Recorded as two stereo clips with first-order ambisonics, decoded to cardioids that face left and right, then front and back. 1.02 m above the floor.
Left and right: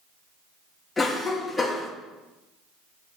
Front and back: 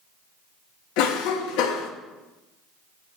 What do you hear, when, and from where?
1.0 s a cough: 10° left, 1.2 m